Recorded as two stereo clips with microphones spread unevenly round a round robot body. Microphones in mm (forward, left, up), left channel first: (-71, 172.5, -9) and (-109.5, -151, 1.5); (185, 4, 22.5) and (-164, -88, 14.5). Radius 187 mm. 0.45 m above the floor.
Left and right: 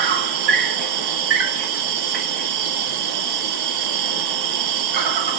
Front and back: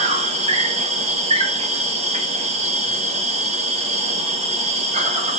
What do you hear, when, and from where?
0.0 s an insect: 90° right, 1.6 m